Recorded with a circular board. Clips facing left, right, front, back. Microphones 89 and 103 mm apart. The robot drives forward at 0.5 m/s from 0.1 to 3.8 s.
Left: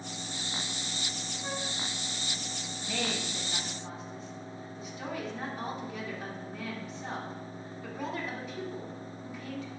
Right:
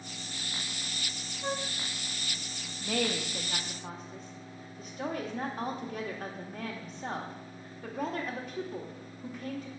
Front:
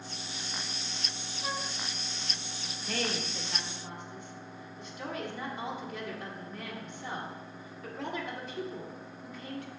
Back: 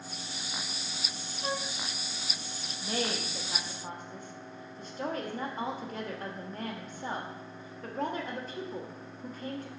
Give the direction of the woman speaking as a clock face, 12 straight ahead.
4 o'clock.